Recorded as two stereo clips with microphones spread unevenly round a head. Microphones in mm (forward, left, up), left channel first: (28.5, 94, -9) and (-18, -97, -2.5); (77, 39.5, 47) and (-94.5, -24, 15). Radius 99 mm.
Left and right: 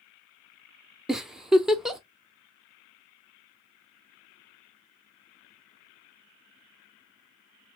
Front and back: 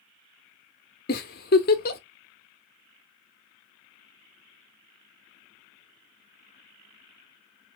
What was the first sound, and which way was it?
A giggle, 15° right.